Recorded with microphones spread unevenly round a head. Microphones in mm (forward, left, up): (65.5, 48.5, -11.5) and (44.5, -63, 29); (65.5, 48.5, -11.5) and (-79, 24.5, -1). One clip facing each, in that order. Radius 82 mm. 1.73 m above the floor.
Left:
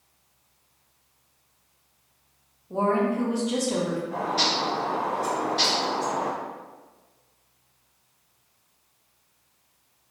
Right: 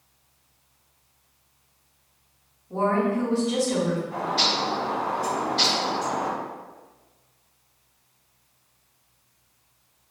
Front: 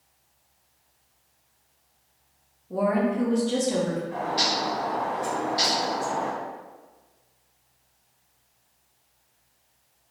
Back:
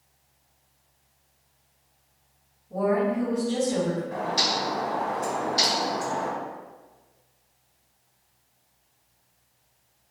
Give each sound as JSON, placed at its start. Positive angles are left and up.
{"t": 2.7, "sound": "a woman speaking", "azimuth_deg": 0, "distance_m": 0.9}
{"t": 4.1, "sound": "a bird", "azimuth_deg": 180, "distance_m": 1.0}